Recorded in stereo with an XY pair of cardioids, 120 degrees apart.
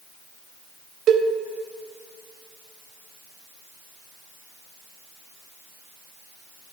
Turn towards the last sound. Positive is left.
turn(degrees=-65)